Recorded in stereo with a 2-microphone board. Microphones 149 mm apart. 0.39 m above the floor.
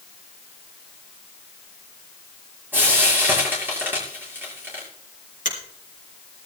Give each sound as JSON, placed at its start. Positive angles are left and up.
{"t": 2.7, "sound": "frying", "side_deg": -15, "distance_m": 7.0}
{"t": 5.5, "sound": "a finger snap", "side_deg": 60, "distance_m": 4.0}